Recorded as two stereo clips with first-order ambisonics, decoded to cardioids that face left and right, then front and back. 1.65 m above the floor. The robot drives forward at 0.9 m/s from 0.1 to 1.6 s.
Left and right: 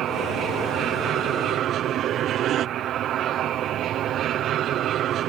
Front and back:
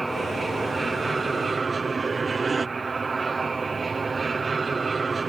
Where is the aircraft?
105° right; by 5.3 s 115° right.